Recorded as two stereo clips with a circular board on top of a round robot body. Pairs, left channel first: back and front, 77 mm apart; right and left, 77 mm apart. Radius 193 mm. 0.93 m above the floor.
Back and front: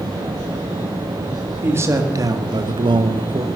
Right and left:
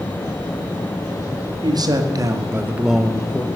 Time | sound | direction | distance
1.6 | a man speaking | 60° left | 2.5 m